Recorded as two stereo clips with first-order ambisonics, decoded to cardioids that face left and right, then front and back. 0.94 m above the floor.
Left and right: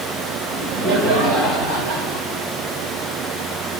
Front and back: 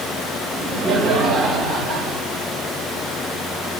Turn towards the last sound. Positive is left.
turn(degrees=-120)